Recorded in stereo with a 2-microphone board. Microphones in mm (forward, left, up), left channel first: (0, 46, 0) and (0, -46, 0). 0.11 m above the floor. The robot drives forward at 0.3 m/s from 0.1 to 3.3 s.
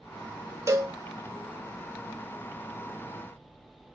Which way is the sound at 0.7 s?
35° right (ahead or behind).